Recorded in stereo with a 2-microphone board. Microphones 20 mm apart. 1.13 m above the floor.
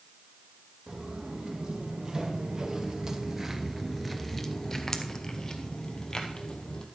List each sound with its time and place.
0.9 s footsteps: 45° right (ahead or behind), 2.5 m; by 6.9 s 40° left (ahead or behind), 2.5 m